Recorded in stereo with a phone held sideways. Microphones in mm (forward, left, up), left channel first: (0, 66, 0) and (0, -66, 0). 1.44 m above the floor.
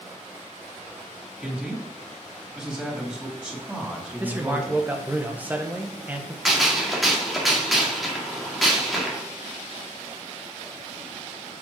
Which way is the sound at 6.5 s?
Centre (ahead or behind).